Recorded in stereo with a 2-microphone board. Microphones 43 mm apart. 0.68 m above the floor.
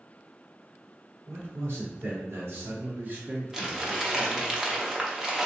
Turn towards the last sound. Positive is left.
turn(degrees=-10)  # may be behind; listen again after turning